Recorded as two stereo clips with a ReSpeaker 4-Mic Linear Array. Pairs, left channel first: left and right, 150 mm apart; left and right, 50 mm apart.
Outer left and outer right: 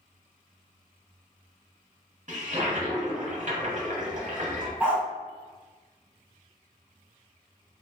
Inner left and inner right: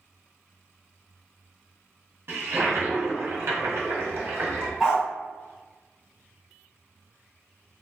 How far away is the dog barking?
About 1.4 m.